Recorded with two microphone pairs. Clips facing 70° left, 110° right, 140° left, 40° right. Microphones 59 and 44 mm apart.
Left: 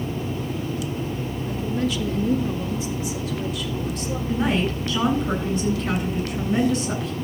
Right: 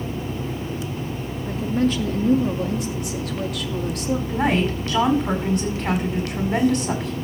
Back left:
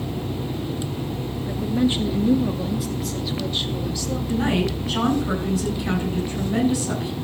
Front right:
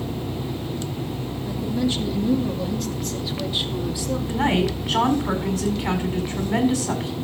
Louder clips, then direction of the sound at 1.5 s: Right 4 dB, back left 3 dB; 160° right.